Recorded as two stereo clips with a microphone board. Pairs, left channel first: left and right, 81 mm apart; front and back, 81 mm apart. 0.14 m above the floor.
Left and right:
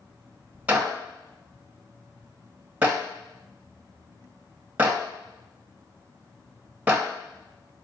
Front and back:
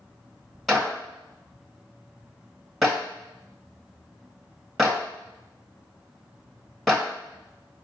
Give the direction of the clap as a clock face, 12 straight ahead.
3 o'clock.